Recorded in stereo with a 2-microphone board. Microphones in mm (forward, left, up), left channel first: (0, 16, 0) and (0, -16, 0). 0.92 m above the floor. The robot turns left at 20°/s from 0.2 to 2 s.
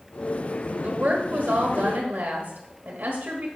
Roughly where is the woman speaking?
Right.